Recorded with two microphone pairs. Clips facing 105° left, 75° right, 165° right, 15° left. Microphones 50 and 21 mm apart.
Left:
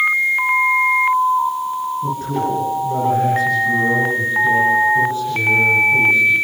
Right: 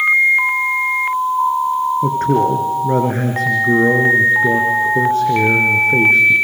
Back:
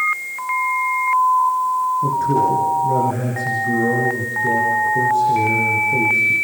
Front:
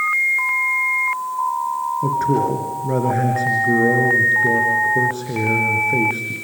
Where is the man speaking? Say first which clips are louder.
Right 6 dB, front 2 dB; 45° right, 4 m.